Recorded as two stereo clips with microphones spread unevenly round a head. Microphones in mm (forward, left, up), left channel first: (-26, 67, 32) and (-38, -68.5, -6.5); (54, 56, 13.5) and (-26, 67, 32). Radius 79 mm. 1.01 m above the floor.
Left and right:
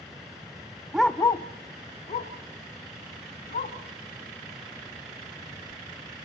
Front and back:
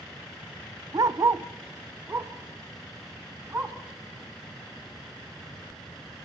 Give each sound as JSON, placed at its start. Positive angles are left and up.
{"t": 0.9, "sound": "a dog barking", "azimuth_deg": 170, "distance_m": 0.5}